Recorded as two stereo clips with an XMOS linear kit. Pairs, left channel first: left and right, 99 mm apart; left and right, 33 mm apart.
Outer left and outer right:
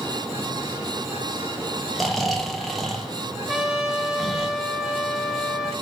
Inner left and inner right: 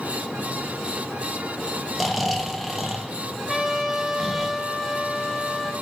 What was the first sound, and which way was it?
Snoring, centre (ahead or behind).